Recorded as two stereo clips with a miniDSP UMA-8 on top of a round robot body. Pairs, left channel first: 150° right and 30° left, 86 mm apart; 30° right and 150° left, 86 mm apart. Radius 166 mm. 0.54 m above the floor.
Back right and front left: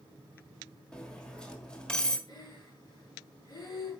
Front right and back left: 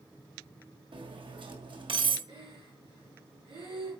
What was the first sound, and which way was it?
Cutlery clinking, 130° left.